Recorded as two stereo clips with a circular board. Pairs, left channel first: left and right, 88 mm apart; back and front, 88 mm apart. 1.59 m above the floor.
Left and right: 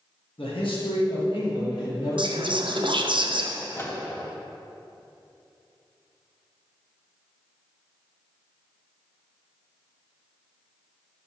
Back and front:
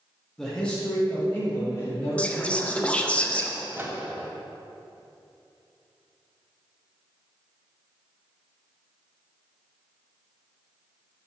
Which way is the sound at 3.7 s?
45° left.